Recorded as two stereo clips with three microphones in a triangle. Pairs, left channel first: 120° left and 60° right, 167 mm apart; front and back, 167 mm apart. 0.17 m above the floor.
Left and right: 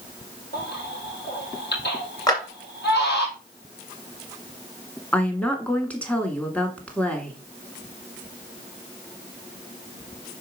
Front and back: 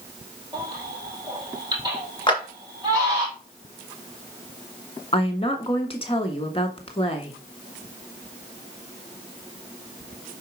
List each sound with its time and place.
0.5 s a baby crying: 115° left, 4 m
2.3 s a clap: 55° left, 2.5 m
5.1 s a woman speaking: 40° left, 1.4 m